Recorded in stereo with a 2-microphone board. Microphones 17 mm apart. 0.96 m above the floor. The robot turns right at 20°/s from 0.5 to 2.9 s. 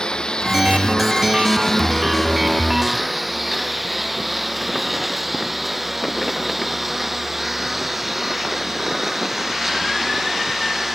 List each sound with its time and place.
0.0 s a lawn mower: 55° left (ahead or behind); by 10.9 s 10° right (ahead or behind)